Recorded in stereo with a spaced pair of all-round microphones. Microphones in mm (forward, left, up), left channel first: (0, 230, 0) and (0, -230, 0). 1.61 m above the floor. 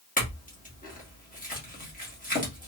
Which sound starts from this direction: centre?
A clink, at 0.2 s.